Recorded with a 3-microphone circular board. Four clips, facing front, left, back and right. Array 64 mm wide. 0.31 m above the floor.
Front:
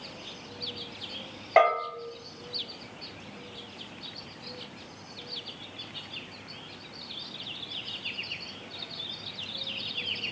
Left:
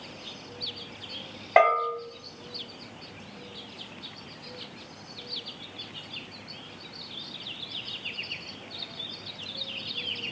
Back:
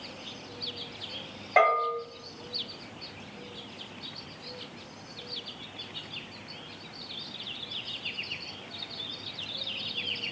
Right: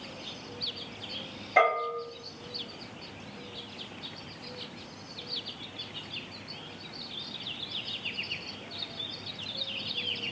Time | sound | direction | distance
1.6 | a bell | 75° left | 2 m